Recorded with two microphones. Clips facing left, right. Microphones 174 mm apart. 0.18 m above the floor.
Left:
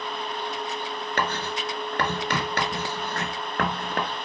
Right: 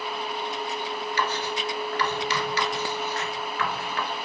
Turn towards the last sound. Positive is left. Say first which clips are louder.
# left 1 dB
turn(degrees=60)  # may be behind; listen again after turning